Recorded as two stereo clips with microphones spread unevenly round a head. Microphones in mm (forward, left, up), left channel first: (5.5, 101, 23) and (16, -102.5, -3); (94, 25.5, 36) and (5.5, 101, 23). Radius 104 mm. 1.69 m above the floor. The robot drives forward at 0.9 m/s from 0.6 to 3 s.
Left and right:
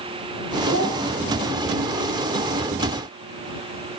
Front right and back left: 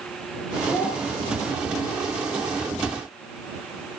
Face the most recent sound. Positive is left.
turn(degrees=-160)